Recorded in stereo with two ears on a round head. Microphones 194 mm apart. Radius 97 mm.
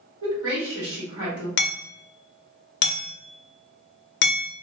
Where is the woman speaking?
60° right (ahead or behind), 1.7 m.